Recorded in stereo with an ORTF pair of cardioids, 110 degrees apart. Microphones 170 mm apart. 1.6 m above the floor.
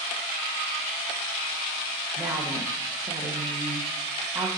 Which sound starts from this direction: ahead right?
A woman speaking, at 2.2 s.